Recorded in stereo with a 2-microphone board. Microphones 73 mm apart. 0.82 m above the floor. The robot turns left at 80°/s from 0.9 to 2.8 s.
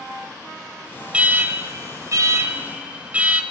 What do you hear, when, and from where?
1.1 s an alarm: 20° right, 0.9 m; by 3.4 s 155° right, 0.9 m